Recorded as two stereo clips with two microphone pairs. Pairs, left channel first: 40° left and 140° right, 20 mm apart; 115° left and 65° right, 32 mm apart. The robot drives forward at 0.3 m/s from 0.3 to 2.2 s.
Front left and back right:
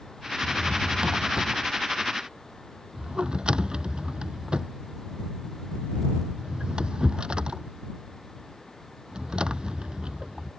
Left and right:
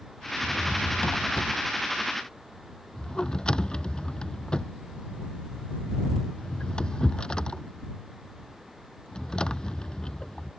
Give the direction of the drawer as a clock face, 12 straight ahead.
6 o'clock.